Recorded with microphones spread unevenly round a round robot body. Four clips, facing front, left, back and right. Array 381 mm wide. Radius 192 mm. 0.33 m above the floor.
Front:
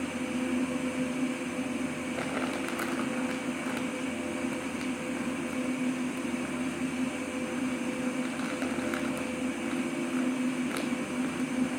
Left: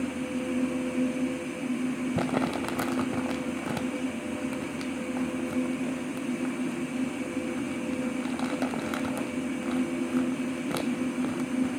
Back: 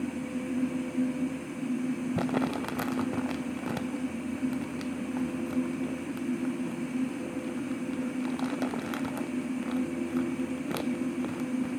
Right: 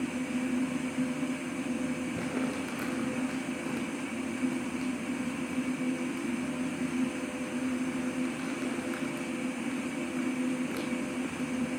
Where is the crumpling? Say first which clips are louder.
Left 5 dB, back 2 dB; 100° left, 0.5 m.